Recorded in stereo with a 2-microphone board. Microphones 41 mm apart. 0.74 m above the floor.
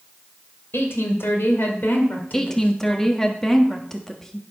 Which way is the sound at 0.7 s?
70° left (ahead or behind).